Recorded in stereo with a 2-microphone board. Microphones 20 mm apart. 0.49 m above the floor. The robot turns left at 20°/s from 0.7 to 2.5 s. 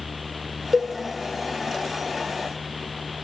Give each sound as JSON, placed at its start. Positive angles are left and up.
{"t": 0.7, "sound": "a cowbell", "side_deg": -15, "distance_m": 1.2}